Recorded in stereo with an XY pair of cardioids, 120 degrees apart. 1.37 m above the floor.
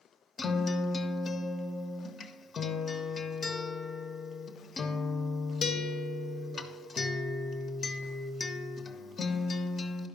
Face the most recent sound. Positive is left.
turn(degrees=35)